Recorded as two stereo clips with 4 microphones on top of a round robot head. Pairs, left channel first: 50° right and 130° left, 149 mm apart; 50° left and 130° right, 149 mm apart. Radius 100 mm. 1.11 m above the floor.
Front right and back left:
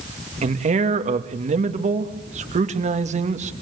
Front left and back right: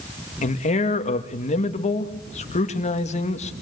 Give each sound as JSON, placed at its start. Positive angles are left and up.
{"t": 0.4, "sound": "a man speaking", "azimuth_deg": 90, "distance_m": 2.0}